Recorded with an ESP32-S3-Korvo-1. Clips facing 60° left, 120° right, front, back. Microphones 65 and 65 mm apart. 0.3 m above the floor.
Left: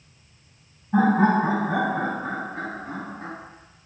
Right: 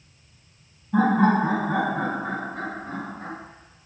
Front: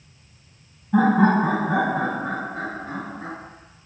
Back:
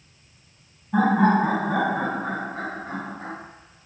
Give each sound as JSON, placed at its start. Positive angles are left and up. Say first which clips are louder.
{"t": 0.9, "sound": "laughter", "louder": "even, front 2 dB", "azimuth_deg": 90, "distance_m": 1.7}